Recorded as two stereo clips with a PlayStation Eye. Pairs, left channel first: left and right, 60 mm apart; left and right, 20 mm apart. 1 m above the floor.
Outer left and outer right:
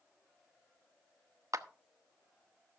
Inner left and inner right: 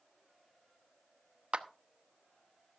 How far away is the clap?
About 0.9 m.